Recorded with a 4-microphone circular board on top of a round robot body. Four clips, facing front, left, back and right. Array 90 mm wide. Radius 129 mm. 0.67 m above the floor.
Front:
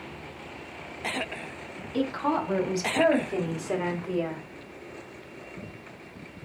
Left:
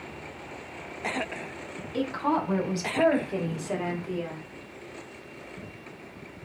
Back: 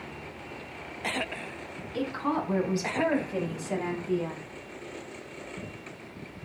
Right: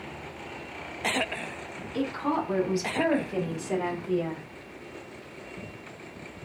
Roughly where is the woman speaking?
Ahead left.